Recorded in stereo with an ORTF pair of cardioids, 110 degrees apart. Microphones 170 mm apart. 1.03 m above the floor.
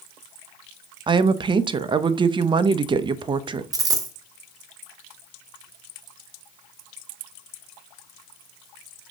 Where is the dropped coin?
20° right, 1.3 m.